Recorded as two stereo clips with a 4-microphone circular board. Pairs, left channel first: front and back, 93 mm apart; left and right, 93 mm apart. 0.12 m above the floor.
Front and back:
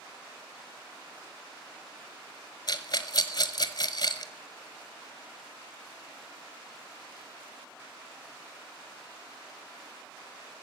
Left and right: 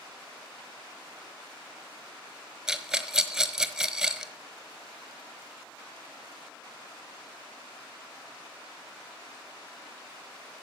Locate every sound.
2.7 s a rattle: 5° right, 1.1 m